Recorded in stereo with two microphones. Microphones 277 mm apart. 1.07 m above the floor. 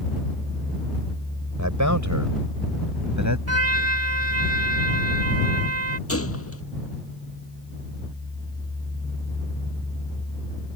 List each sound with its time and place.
1.6 s a man speaking: 75° right (ahead or behind)
3.5 s a trumpet: 55° right (ahead or behind)
6.1 s a gunshot: 50° left (ahead or behind)